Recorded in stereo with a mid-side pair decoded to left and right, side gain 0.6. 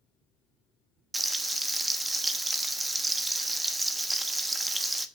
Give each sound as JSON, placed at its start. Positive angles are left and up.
{"t": 1.1, "sound": "frying", "azimuth_deg": -20, "distance_m": 1.1}